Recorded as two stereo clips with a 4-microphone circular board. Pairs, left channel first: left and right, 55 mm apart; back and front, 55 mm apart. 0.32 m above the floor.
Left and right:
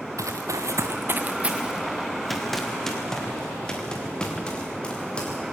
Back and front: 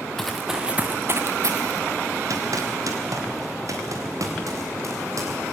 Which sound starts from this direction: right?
Running footsteps, at 0.2 s.